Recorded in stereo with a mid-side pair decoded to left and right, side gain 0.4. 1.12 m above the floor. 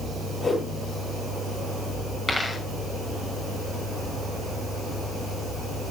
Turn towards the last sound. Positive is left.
turn(degrees=20)